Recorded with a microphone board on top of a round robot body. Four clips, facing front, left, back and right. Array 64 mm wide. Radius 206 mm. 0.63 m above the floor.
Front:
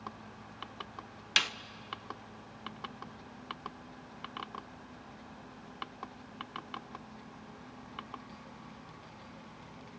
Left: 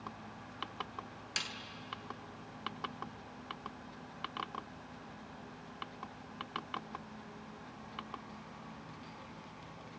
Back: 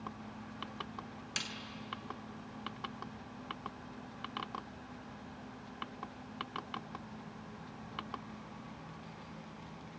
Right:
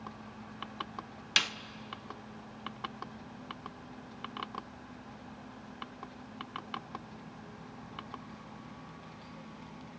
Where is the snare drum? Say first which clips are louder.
Right 10 dB, front 11 dB; 35° right, 1.0 m.